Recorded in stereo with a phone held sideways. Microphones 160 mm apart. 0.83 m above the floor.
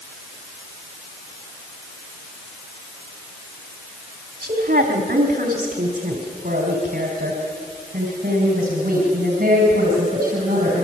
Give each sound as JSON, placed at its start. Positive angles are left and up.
{"t": 4.4, "sound": "a woman speaking", "side_deg": -70, "distance_m": 2.0}